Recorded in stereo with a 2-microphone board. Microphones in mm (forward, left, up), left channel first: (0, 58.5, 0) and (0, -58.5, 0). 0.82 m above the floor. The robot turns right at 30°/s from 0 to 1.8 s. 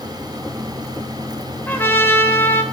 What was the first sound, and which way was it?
A trumpet, 15° left (ahead or behind).